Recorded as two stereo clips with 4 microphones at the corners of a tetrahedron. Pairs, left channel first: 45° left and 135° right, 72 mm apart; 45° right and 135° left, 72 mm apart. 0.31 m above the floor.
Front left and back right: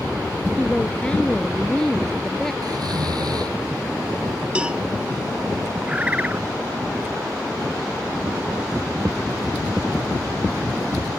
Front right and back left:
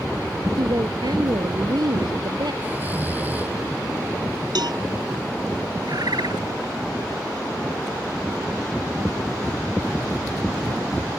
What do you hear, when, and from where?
0.6 s a woman speaking: 115° left; by 2.5 s 130° left
2.6 s snoring: 160° right
4.5 s a cowbell: 150° left
5.9 s a bird: 155° left